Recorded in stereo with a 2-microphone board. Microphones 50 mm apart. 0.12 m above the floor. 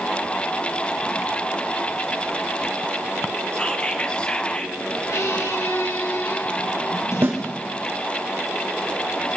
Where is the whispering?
20° left (ahead or behind), 1.9 m.